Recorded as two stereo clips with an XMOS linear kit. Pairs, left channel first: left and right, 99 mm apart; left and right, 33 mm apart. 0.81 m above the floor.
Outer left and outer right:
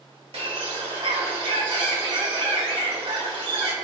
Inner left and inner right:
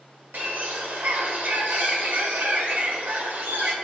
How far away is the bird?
About 1.4 m.